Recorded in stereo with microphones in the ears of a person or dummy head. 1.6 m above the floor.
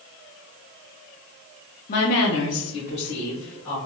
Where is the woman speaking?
45° left (ahead or behind), 0.5 m.